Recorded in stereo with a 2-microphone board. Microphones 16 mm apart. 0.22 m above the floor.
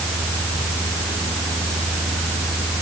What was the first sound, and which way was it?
Only background noise.